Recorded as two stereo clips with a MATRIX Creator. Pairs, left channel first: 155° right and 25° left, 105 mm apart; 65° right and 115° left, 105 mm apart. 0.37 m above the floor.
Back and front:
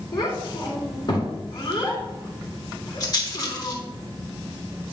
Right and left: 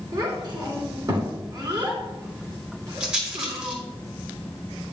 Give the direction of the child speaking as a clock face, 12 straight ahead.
7 o'clock.